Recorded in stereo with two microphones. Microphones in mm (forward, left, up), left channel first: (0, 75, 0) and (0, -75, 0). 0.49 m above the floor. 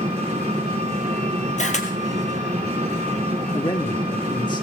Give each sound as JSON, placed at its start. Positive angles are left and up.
{"t": 0.0, "sound": "an engine running", "side_deg": -45, "distance_m": 4.0}
{"t": 1.6, "sound": "a camera shutter", "side_deg": 50, "distance_m": 1.9}
{"t": 3.5, "sound": "a man speaking", "side_deg": 30, "distance_m": 0.9}